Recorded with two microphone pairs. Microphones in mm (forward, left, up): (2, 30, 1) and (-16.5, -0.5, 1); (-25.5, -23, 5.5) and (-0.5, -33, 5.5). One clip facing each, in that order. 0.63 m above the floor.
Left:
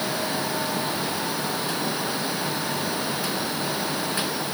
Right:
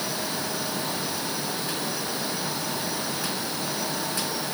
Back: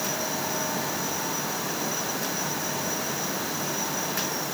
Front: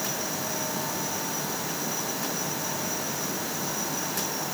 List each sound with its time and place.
Only background noise.